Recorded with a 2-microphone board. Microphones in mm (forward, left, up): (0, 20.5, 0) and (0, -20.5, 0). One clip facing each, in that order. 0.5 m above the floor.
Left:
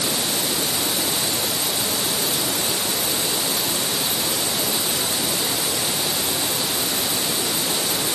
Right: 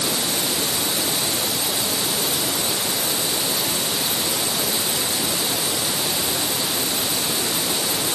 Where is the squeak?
No squeak in this recording.